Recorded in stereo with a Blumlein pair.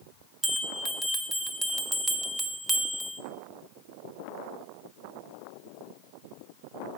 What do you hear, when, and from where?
0.4 s a bell: 5° right, 0.7 m